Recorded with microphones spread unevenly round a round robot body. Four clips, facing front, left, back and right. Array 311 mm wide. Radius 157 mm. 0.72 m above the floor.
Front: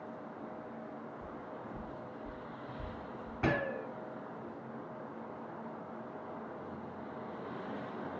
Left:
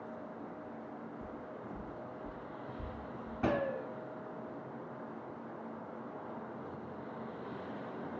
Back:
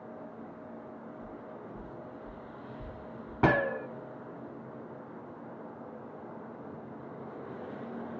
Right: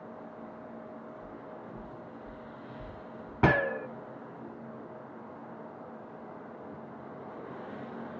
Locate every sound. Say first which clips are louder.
1.2 s footsteps: right 1 dB, back 1 dB; 65° left, 2.5 m; by 3.3 s 70° left, 4 m
3.4 s a gunshot: right 7 dB, back 7 dB; 100° right, 0.7 m